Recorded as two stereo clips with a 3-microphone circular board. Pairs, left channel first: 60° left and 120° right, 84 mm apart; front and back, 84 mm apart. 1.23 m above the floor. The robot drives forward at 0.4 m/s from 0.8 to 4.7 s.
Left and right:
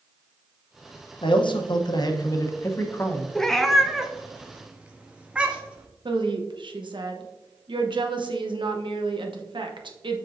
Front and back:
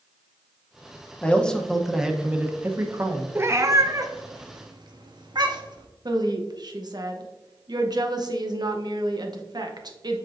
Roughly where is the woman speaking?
Behind right.